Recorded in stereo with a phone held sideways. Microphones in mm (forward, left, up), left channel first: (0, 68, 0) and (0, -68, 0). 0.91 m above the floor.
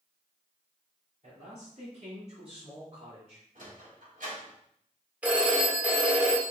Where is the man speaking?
60° right (ahead or behind), 3.5 m; by 3.5 s 45° right (ahead or behind), 3 m.